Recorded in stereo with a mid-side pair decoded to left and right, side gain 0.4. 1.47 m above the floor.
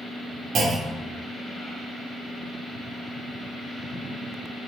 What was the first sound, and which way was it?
A clunk, 65° right.